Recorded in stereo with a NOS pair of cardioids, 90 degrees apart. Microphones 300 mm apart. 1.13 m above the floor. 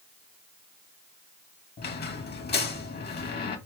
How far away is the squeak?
About 1.1 m.